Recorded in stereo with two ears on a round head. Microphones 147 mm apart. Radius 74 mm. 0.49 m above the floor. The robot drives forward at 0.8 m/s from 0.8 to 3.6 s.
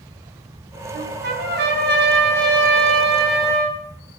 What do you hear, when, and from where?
0.9 s a trumpet: 60° right (ahead or behind), 3 m; by 3.8 s 70° right (ahead or behind), 3 m